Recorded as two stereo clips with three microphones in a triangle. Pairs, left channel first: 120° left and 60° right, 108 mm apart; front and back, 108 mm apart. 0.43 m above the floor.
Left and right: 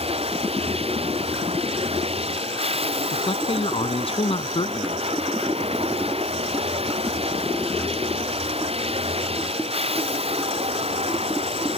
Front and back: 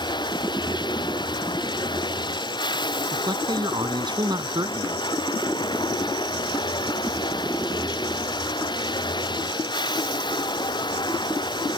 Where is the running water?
45° right.